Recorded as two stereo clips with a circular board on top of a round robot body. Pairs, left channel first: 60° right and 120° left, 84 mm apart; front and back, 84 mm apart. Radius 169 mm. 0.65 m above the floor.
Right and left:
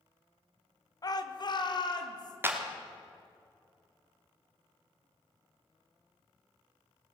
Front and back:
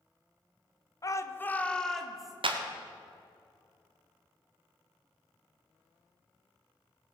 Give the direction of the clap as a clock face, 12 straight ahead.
6 o'clock.